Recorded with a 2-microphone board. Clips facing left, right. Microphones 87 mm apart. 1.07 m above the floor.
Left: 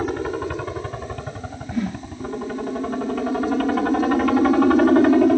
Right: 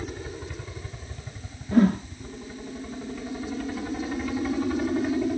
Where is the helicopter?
65° left (ahead or behind).